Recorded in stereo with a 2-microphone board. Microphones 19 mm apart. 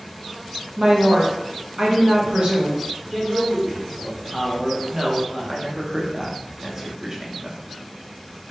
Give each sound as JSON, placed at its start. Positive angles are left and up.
{"t": 0.8, "sound": "a woman speaking", "side_deg": -65, "distance_m": 0.8}
{"t": 3.1, "sound": "a man speaking", "side_deg": -15, "distance_m": 0.7}
{"t": 4.9, "sound": "a woman speaking", "side_deg": -20, "distance_m": 0.5}